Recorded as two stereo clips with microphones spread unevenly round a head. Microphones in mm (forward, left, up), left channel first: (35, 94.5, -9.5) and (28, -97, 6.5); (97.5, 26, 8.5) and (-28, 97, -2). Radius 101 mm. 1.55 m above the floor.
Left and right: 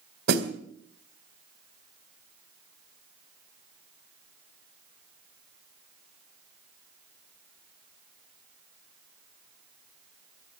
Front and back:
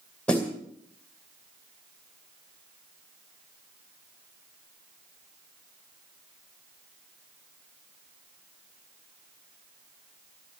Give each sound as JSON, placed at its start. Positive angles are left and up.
{"t": 0.3, "sound": "a snare drum", "azimuth_deg": -110, "distance_m": 2.0}